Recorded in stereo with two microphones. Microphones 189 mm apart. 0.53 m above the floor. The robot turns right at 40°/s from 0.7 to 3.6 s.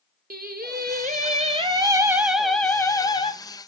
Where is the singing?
70° right, 1.2 m; by 3.3 s 35° left, 1.2 m.